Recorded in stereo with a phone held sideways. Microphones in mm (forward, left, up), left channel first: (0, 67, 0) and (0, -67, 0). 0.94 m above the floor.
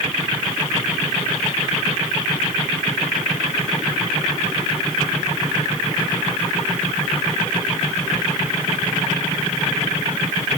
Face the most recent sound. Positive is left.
No sound to turn to.